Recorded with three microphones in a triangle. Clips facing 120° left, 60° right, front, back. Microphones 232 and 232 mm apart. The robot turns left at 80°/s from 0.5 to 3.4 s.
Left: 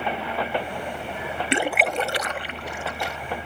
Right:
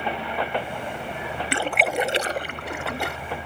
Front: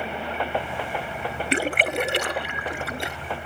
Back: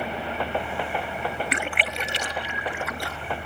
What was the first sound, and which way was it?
A splash, 55° left.